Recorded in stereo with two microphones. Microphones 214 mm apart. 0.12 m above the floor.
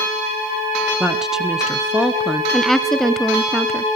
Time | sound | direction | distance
1.0 | a woman speaking | centre (ahead or behind) | 1.5 m
2.5 | a woman speaking | centre (ahead or behind) | 1.4 m